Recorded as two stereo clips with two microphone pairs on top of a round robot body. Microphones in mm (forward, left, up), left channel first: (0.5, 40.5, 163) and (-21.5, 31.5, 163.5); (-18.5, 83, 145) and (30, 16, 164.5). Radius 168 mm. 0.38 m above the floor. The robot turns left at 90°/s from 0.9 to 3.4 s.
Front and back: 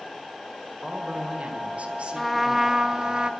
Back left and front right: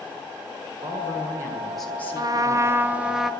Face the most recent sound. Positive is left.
turn(degrees=-175)